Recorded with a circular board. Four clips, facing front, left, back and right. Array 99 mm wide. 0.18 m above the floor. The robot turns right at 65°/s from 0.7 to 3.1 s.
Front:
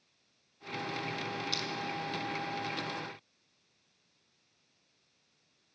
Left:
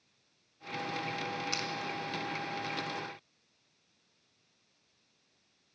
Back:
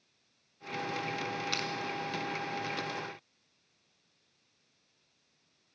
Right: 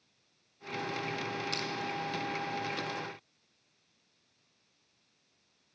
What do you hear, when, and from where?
1.5 s crushing: 165° left, 0.5 m; by 1.7 s 175° left, 0.5 m